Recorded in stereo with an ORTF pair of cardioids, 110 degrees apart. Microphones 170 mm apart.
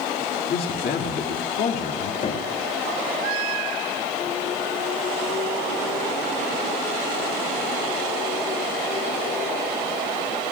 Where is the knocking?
50° left, 5.5 m.